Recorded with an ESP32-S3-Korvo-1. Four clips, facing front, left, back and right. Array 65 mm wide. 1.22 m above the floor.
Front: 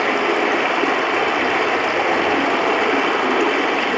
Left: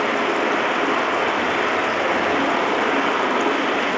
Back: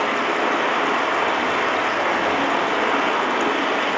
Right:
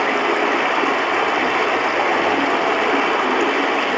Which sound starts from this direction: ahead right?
Running water, at 0.0 s.